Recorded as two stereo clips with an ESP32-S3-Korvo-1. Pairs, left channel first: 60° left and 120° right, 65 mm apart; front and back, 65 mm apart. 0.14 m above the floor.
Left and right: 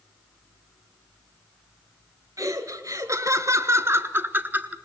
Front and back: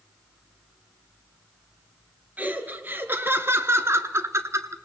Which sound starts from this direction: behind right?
Laughter, at 2.4 s.